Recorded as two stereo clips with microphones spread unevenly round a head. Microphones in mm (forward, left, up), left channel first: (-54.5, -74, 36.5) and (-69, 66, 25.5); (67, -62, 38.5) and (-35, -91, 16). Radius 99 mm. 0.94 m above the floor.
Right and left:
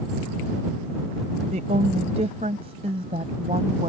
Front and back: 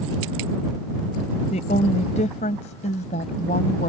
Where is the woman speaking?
40° left; by 3.9 s 35° left.